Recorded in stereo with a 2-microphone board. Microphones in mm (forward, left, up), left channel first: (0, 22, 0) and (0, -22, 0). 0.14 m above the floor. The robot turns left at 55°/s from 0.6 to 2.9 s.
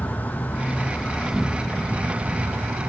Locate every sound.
0.0 s an insect: 40° left, 0.9 m; by 2.9 s 85° right, 0.9 m